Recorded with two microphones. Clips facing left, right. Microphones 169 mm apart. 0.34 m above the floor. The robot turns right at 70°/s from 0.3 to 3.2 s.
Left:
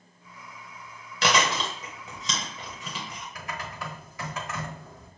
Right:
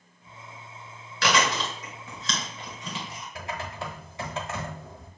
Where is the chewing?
20° left (ahead or behind), 1.6 m; by 3.2 s 10° right (ahead or behind), 1.6 m.